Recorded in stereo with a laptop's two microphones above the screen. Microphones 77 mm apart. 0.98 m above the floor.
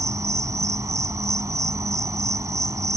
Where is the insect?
40° right (ahead or behind).